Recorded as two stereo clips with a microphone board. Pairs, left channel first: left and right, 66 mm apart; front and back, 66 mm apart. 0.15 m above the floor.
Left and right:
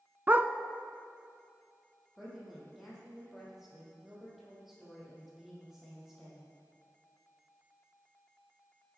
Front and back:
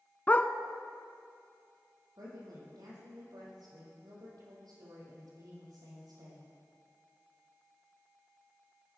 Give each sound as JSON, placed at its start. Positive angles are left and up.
{"t": 0.3, "sound": "a dog barking", "azimuth_deg": -50, "distance_m": 0.7}
{"t": 2.2, "sound": "a woman speaking", "azimuth_deg": -175, "distance_m": 6.0}